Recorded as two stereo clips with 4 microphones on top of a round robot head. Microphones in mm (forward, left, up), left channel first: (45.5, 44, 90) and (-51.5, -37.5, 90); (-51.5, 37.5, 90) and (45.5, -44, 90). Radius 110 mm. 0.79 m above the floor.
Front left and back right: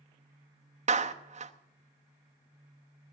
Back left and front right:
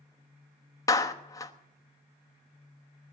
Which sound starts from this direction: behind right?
A clap, at 0.9 s.